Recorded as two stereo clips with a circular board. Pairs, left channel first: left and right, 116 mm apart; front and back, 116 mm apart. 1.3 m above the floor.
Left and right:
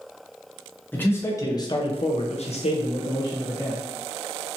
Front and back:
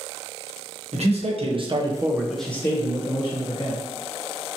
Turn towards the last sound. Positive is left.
turn(degrees=35)